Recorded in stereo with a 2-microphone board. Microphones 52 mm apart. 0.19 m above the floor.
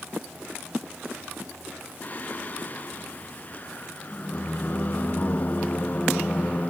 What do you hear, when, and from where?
2.0 s singing: 35° left (ahead or behind), 0.6 m